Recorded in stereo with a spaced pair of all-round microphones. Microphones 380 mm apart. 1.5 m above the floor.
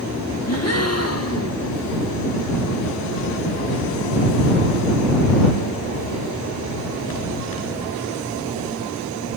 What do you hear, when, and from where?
0.5 s a gasp: 40° left (ahead or behind)